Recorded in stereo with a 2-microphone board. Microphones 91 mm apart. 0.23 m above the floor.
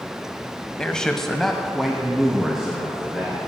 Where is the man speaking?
10° left (ahead or behind), 1.1 m; by 3.5 s 5° right (ahead or behind), 4 m.